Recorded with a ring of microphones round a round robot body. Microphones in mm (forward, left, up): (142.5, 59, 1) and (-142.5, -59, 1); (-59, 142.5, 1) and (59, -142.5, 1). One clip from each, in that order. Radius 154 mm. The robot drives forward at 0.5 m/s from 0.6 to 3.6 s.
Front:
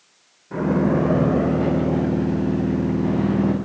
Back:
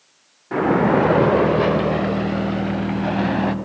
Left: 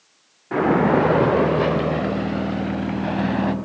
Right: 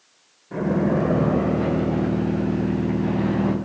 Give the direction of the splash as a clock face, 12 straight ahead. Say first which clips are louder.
Back 4 dB, left 6 dB; 7 o'clock.